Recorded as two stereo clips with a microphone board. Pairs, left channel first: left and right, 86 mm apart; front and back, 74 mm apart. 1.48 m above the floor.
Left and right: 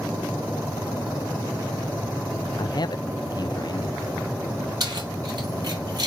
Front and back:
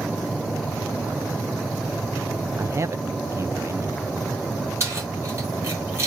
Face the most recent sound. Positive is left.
turn(degrees=-130)